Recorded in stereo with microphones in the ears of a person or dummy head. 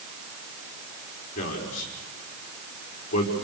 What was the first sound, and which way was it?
A man speaking, 40° left (ahead or behind).